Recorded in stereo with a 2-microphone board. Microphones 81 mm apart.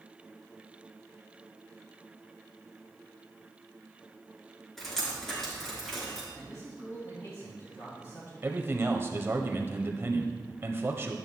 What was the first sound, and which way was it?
Dripping, 5° left (ahead or behind).